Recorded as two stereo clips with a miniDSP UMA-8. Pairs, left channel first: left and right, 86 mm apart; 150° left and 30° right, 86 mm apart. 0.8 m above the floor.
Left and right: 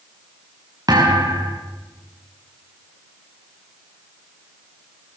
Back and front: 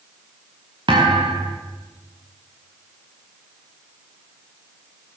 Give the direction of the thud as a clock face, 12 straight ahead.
2 o'clock.